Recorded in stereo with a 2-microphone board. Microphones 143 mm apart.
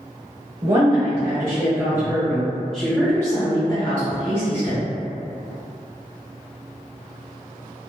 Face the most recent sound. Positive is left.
turn(degrees=50)  # may be behind; listen again after turning